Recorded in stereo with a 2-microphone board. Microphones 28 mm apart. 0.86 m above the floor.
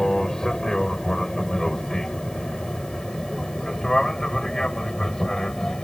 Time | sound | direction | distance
0.0 | an aircraft | 25° left (ahead or behind) | ?